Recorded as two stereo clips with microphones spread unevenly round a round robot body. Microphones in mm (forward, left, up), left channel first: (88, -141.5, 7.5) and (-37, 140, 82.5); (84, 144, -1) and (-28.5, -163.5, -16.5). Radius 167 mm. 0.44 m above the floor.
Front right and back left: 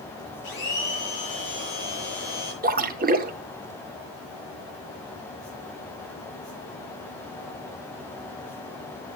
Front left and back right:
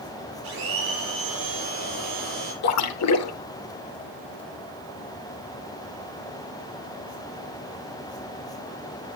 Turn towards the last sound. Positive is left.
turn(degrees=45)